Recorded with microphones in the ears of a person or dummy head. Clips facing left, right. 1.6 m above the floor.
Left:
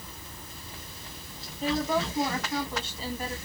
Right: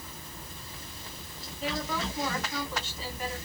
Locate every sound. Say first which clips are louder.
1.6 s a woman speaking: left 6 dB; 30° left (ahead or behind), 1.8 m